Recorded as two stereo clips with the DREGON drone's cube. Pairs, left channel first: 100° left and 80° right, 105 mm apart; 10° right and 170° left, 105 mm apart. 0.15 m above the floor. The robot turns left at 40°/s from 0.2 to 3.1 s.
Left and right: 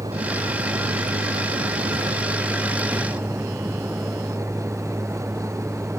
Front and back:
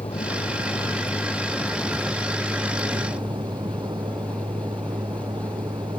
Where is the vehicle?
35° right; by 6.0 s 150° right.